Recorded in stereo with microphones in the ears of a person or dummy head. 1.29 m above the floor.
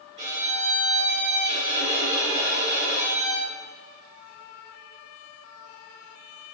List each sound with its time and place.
0.2 s a violin: 40° right (ahead or behind), 4.5 m